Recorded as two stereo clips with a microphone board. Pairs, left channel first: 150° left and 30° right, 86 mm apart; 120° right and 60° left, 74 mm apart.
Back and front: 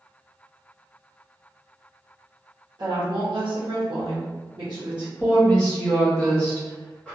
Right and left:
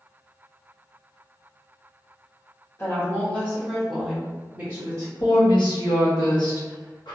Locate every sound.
2.8 s a woman speaking: 60° right, 1.2 m; by 5.1 s 10° left, 1.0 m
5.2 s a woman speaking: 130° right, 1.3 m